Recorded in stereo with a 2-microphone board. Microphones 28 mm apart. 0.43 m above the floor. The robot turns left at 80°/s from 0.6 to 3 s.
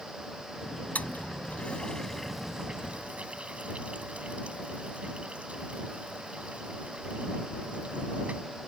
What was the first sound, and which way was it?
A toilet flushing, 65° left (ahead or behind).